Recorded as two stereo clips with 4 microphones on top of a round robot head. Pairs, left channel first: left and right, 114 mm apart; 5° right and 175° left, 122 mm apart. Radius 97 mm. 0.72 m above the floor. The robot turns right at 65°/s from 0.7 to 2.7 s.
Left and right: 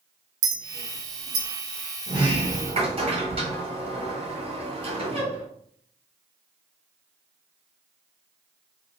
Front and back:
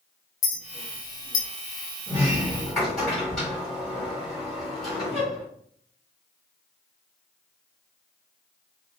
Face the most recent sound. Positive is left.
turn(degrees=-90)